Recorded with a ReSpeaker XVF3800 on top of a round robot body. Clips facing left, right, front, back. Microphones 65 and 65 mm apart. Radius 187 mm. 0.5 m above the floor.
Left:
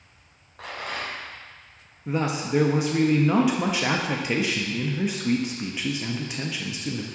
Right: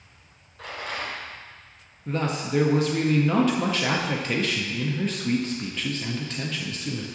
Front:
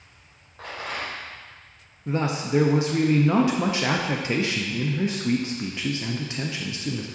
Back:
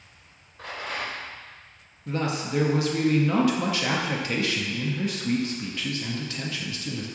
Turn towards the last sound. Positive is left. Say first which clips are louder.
# left 1 dB, front 3 dB
turn(degrees=25)